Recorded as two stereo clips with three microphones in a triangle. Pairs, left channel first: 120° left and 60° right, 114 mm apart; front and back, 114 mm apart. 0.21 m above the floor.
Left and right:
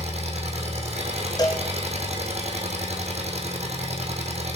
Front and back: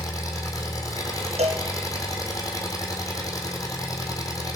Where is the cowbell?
175° left, 1.6 m.